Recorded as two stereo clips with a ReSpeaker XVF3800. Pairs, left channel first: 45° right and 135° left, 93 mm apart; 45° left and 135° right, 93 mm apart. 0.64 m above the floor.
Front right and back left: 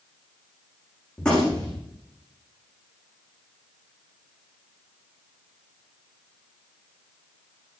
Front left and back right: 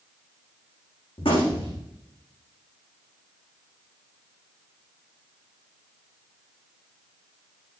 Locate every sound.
1.2 s a gunshot: 35° left, 9.5 m